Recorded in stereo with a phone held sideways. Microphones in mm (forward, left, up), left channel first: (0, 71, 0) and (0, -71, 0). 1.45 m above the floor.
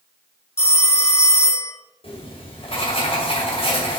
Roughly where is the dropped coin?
No dropped coin in this recording.